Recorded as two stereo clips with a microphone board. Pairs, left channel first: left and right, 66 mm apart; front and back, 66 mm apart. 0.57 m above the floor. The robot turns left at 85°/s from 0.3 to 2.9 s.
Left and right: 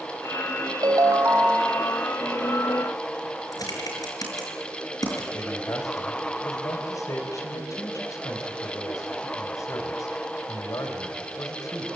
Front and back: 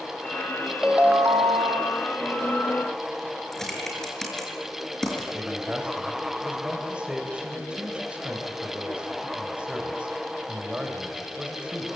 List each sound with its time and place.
0.8 s a ringtone: 100° right, 1.4 m; by 2.0 s 165° left, 1.4 m
3.5 s typing on a keyboard: 85° left, 6.5 m
5.3 s a man speaking: 110° left, 3 m